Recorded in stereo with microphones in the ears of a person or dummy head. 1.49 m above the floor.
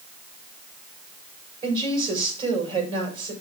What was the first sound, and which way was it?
A woman speaking, 30° right (ahead or behind).